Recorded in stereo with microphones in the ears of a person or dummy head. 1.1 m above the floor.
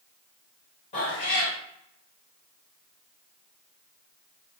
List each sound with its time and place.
0.9 s a cat meowing: 35° left (ahead or behind), 1.1 m